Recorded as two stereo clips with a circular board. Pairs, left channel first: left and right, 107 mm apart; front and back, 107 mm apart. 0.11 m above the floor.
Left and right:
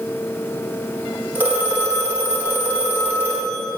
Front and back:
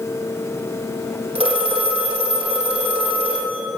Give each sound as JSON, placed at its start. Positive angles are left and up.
{"t": 1.4, "sound": "a phone ringing", "azimuth_deg": -160, "distance_m": 3.5}